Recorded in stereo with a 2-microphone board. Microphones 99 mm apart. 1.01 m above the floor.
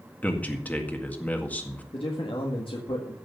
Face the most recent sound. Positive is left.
turn(degrees=55)  # may be behind; listen again after turning